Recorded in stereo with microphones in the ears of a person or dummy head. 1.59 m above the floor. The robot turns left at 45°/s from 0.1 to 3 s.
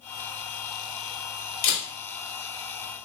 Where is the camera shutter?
45° left (ahead or behind), 2 m; by 1.9 s 35° left (ahead or behind), 2 m.